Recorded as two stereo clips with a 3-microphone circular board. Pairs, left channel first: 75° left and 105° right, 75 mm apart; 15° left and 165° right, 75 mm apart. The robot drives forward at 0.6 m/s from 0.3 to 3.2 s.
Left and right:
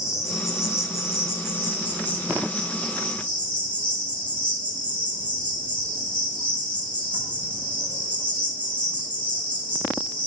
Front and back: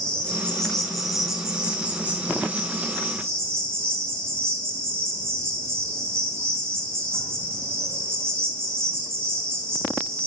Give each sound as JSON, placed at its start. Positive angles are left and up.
{"t": 0.0, "sound": "an insect", "azimuth_deg": 85, "distance_m": 1.6}